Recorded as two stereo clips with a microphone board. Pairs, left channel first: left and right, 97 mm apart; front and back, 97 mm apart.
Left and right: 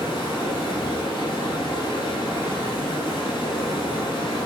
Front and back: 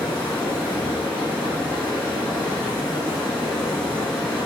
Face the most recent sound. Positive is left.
turn(degrees=80)